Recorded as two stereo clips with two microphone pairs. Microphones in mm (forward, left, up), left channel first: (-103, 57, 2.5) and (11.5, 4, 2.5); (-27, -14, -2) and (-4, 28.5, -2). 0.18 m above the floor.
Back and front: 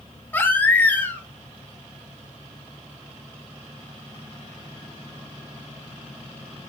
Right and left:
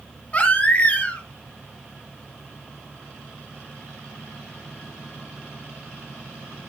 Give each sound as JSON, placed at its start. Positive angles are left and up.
{"t": 0.3, "sound": "a baby crying", "azimuth_deg": -150, "distance_m": 1.2}